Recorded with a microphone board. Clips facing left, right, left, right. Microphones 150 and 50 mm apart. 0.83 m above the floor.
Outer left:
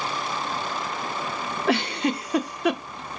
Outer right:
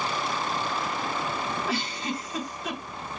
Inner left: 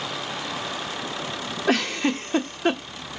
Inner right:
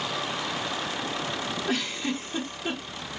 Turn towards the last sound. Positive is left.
turn(degrees=70)  # may be behind; listen again after turning